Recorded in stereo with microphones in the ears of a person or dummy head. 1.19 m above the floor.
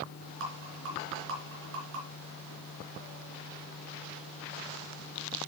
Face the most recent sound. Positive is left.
turn(degrees=-65)  # may be behind; listen again after turning